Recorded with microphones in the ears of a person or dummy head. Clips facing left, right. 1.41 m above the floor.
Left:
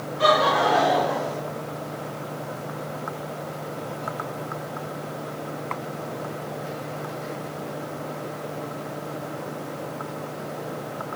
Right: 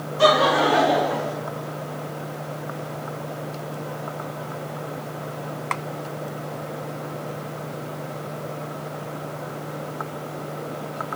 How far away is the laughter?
About 3.5 m.